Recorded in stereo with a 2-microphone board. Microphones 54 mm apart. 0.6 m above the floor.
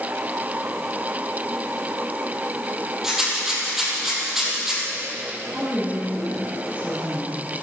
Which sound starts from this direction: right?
A woman speaking, at 5.5 s.